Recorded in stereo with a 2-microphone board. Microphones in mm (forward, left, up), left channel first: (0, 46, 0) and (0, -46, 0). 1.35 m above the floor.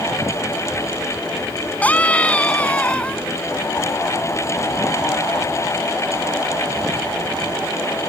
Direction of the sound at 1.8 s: 15° left (ahead or behind).